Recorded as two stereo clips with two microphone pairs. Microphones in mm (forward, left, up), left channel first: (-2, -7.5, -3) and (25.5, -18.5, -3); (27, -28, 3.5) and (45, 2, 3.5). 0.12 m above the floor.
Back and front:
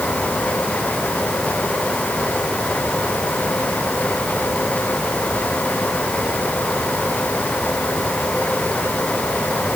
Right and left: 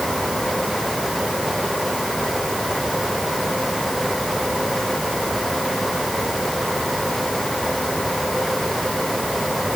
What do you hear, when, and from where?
Only background noise.